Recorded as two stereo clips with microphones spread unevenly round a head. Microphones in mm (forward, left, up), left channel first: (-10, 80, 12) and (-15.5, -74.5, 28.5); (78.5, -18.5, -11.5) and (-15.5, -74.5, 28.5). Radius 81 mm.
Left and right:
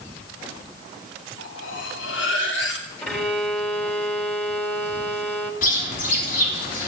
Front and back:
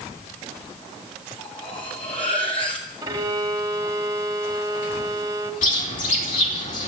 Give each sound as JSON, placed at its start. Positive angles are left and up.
{"t": 1.4, "sound": "cutlery clinking", "azimuth_deg": 95, "distance_m": 2.5}
{"t": 3.0, "sound": "a violin", "azimuth_deg": 175, "distance_m": 2.0}
{"t": 5.6, "sound": "a bird", "azimuth_deg": 45, "distance_m": 4.0}